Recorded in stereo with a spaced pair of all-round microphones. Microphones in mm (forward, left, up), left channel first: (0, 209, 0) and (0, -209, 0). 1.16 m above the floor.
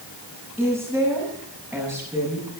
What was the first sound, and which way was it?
A woman speaking, centre (ahead or behind).